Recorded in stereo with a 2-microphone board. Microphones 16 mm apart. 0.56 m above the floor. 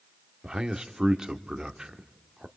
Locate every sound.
0.4 s a man speaking: 40° right (ahead or behind), 1.2 m